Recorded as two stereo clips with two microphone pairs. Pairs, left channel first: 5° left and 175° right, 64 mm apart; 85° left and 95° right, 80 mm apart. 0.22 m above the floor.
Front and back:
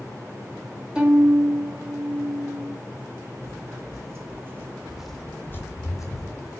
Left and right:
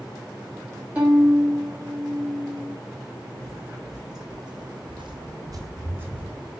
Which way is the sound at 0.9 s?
130° right.